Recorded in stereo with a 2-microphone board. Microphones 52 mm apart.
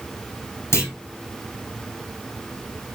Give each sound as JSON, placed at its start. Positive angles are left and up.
{"t": 0.7, "sound": "a clunk", "side_deg": 65, "distance_m": 2.5}